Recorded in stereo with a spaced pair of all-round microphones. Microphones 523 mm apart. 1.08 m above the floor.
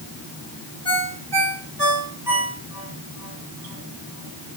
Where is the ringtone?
50° right (ahead or behind), 2.5 m.